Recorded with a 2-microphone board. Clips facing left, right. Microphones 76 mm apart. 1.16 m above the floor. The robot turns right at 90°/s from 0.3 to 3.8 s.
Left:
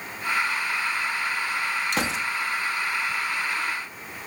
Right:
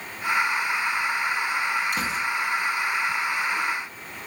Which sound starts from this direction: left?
A gunshot, at 1.9 s.